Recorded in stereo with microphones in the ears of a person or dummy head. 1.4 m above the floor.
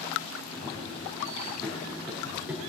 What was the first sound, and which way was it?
Running footsteps, 20° left (ahead or behind).